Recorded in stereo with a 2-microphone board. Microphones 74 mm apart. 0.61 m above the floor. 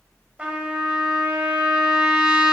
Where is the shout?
No shout in this recording.